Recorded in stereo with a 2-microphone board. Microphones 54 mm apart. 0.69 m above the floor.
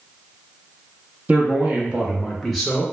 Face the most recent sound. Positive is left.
turn(degrees=10)  # may be behind; listen again after turning